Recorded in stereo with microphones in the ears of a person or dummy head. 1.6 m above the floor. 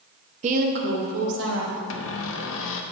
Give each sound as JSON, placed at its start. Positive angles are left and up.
{"t": 0.4, "sound": "a woman speaking", "side_deg": -35, "distance_m": 0.8}
{"t": 1.9, "sound": "a cupboard door", "side_deg": 75, "distance_m": 0.8}